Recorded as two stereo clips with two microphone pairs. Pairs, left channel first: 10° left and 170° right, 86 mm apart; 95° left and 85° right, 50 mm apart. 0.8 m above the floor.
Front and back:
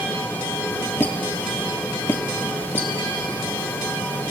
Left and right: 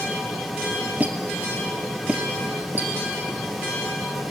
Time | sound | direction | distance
1.0 | a squeak | 45° right | 1.0 m